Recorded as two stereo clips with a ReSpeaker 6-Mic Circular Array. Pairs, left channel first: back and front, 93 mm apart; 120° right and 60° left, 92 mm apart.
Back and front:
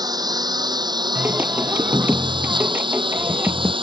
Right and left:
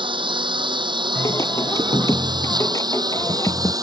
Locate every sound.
0.0 s a lawn mower: 40° left; by 3.8 s 15° left
1.1 s singing: 70° right